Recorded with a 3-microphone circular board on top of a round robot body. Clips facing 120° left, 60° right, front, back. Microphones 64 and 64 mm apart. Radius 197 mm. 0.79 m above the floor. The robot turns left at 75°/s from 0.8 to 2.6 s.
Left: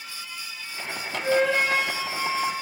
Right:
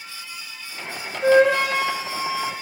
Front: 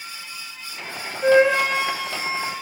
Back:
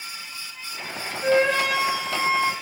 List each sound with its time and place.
1.2 s a flute: 55° right, 4 m; by 2.5 s 155° right, 4 m